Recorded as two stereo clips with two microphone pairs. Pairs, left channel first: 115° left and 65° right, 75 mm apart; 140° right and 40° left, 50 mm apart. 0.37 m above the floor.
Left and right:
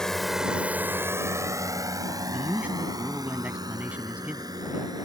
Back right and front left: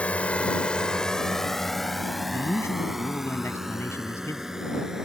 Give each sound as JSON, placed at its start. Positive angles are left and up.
{"t": 0.0, "sound": "a drone", "azimuth_deg": -170}
{"t": 2.3, "sound": "a man speaking", "azimuth_deg": -135}